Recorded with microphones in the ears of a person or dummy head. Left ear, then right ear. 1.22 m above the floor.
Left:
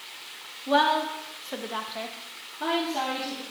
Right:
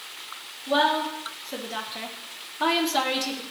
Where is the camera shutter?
No camera shutter in this recording.